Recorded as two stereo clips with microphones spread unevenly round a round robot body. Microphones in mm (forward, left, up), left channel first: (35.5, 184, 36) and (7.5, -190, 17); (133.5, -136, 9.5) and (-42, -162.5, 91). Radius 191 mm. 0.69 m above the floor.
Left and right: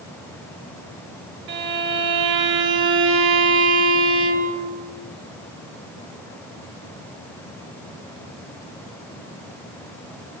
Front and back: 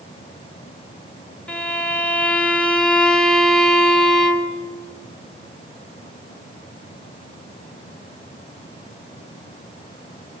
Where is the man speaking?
I don't hear a man speaking.